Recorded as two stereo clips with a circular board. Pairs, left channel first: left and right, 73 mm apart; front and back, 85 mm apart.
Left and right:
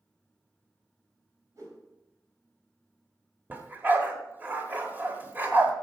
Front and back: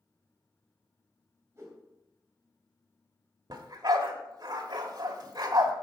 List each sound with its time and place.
1.6 s a whoosh: 125° right, 2.5 m
3.5 s a dog barking: 150° right, 1.2 m